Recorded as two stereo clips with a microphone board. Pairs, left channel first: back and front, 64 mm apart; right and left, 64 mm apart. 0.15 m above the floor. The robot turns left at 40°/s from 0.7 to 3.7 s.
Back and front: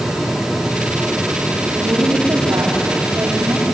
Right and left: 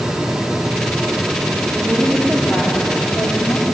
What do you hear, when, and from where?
1.8 s a woman speaking: 5° left, 5.5 m; by 3.6 s 70° right, 5.5 m